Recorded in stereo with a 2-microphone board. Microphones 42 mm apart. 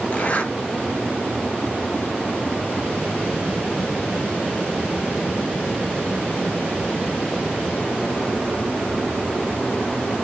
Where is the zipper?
35° left (ahead or behind), 0.6 m.